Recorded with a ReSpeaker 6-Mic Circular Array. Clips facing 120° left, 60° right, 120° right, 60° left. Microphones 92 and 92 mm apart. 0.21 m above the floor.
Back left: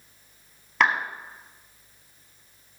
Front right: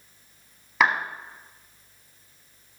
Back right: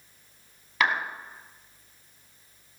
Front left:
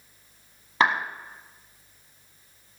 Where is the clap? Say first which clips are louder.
Even, front left 3 dB; 25° left, 1.5 m.